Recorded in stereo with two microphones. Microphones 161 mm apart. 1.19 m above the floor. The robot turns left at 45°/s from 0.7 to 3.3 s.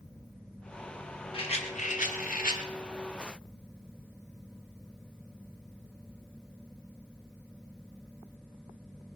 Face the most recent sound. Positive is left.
turn(degrees=50)